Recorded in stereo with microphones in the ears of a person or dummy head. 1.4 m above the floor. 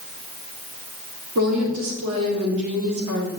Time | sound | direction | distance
1.4 | a woman speaking | 85° right | 3 m